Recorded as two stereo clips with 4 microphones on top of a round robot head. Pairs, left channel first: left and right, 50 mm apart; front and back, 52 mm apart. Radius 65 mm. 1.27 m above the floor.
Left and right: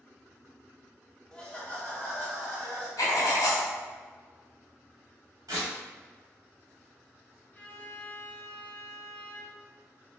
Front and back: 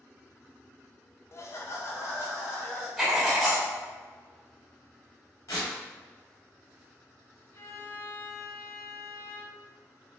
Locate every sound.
1.3 s laughter: 20° left, 0.6 m; by 2.9 s 30° left, 2.5 m
3.0 s writing: 85° left, 1.5 m
5.5 s tearing paper: 45° right, 1.4 m
7.5 s a violin: 30° left, 0.7 m